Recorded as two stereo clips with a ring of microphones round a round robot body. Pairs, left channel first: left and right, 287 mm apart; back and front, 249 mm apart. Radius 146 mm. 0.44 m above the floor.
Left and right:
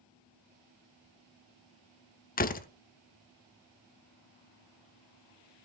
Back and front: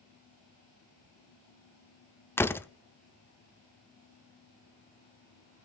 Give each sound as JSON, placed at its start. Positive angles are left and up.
{"t": 2.4, "sound": "a door slam", "azimuth_deg": 110, "distance_m": 0.8}